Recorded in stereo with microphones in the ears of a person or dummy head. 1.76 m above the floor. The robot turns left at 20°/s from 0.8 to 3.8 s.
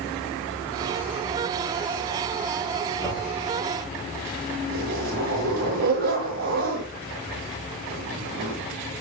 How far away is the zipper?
About 6 m.